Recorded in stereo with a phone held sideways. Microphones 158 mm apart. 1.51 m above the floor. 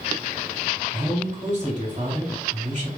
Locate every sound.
0.9 s a man speaking: 50° right (ahead or behind), 1.9 m